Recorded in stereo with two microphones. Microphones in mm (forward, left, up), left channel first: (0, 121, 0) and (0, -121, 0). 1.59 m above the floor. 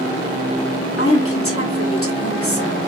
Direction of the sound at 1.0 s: 70° left (ahead or behind).